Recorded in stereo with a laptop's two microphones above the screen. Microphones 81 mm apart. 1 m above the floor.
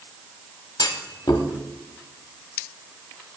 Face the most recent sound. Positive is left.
turn(degrees=60)  # may be behind; listen again after turning